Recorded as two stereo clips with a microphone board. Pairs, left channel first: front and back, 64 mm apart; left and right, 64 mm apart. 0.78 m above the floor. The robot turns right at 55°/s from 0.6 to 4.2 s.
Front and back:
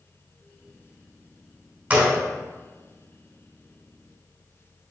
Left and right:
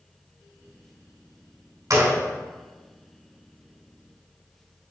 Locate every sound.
1.9 s a gunshot: 120° right, 2.5 m; by 2.2 s 105° right, 2.5 m